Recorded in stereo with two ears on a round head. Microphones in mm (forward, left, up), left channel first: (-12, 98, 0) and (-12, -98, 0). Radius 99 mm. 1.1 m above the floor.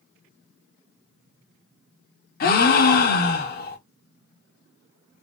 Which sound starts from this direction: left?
A gasp, at 2.4 s.